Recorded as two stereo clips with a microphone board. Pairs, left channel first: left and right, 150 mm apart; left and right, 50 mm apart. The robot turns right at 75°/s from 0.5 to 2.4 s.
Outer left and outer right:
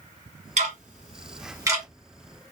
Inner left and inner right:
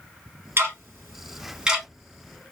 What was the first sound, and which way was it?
Ticking, 50° right (ahead or behind).